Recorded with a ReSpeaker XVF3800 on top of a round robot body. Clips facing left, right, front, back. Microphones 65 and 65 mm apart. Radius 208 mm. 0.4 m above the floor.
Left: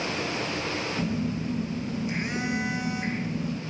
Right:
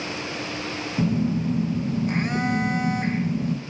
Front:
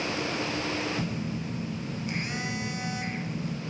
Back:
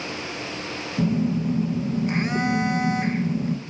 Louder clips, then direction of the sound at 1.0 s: Right 10 dB, back 10 dB; 130° right.